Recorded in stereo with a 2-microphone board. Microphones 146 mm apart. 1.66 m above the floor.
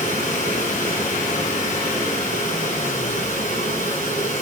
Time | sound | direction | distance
0.0 | running water | 55° left (ahead or behind) | 8 m